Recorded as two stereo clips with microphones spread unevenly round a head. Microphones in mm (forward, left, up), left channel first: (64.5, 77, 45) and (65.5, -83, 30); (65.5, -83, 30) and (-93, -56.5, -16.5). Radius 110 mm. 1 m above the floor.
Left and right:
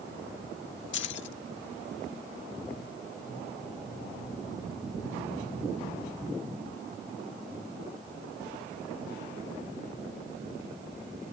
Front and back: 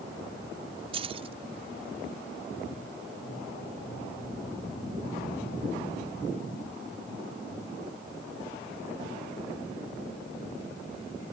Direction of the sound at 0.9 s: 105° left.